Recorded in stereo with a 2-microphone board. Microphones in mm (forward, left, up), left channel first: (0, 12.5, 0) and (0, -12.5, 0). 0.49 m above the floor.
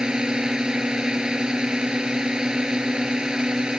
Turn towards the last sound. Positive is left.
turn(degrees=-30)  # may be behind; listen again after turning